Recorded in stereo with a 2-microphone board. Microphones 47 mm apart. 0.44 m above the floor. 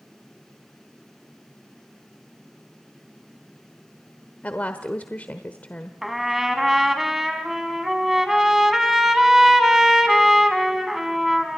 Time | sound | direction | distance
4.4 | a woman speaking | 35° left (ahead or behind) | 1.1 m
6.0 | a trumpet | 5° right (ahead or behind) | 2 m